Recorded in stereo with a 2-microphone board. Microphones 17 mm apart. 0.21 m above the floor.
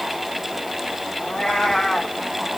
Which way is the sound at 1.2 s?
45° left (ahead or behind).